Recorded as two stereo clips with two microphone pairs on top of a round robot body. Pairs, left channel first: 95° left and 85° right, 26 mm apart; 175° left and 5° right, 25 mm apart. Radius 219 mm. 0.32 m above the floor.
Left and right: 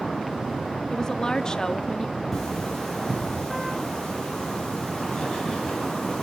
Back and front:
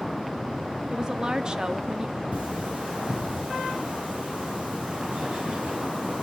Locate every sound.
0.9 s a woman speaking: 35° left, 1.2 m
2.3 s cutlery clinking: 20° left, 8.5 m